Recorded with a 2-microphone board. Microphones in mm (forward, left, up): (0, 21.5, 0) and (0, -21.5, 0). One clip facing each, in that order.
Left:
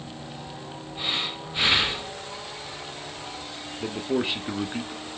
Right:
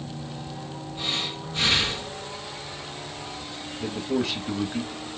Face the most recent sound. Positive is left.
turn(degrees=20)  # may be behind; listen again after turning